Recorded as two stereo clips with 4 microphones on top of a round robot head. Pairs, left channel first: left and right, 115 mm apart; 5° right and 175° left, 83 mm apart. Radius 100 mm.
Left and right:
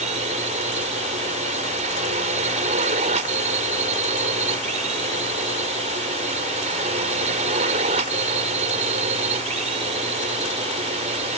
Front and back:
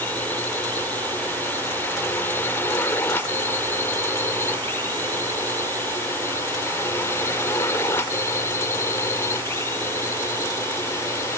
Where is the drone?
75° right; by 11.4 s 65° right.